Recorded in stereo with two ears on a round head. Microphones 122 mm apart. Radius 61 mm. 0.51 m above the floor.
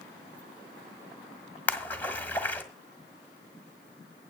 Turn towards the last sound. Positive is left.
turn(degrees=15)  # may be behind; listen again after turning